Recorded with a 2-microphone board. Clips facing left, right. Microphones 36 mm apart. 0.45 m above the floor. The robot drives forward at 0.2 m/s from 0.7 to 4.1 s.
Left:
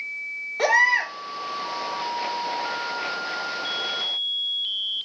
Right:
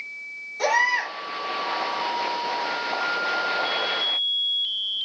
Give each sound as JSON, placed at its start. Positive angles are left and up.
{"t": 0.6, "sound": "a baby crying", "side_deg": 45, "distance_m": 0.7}